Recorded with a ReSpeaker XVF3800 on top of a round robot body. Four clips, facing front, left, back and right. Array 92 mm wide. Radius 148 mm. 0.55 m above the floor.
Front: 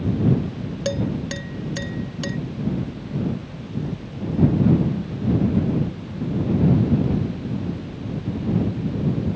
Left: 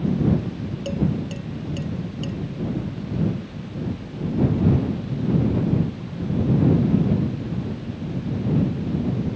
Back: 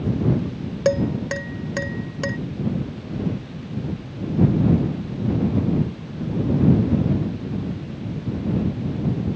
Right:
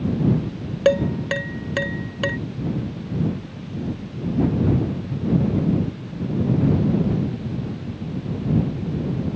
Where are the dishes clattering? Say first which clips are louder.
Right 7 dB, back 5 dB; 120° right.